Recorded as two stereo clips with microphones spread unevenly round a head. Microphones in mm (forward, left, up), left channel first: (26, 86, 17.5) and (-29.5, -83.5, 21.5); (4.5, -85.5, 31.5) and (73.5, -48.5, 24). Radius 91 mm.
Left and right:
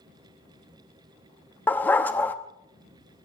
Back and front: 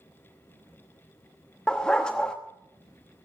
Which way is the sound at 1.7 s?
145° left.